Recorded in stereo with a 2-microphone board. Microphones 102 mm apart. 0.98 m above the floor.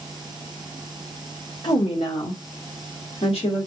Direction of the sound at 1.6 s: 55° left (ahead or behind).